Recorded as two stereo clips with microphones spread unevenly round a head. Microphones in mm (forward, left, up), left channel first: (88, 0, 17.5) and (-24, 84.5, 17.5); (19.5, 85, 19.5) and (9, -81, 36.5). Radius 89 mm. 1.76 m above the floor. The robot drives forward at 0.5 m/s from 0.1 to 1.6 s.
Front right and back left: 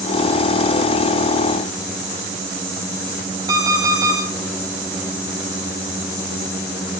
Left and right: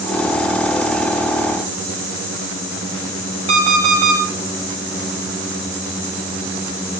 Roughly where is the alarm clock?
Behind right.